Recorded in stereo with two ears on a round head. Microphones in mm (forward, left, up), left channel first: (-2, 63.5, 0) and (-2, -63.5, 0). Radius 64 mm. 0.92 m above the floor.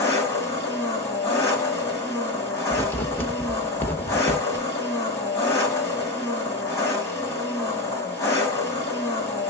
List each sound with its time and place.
0.0 s an engine running: 20° left (ahead or behind), 2 m
2.7 s writing: 15° left (ahead or behind), 0.6 m
4.5 s a whoosh: 20° right (ahead or behind), 1.0 m